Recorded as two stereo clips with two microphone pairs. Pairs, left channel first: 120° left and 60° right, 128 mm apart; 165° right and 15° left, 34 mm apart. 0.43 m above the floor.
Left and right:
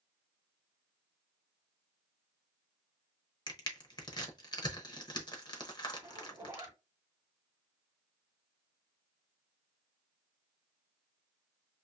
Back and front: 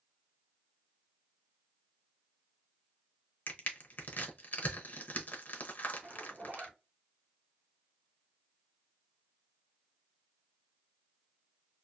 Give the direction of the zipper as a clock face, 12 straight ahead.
12 o'clock.